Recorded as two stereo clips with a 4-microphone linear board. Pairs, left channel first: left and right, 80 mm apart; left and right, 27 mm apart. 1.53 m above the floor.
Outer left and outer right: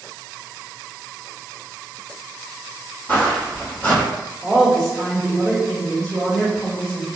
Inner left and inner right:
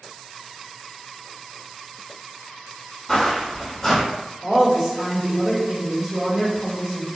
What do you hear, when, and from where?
3.1 s footsteps: 20° left (ahead or behind), 1.8 m
4.4 s a woman speaking: 10° right (ahead or behind), 0.9 m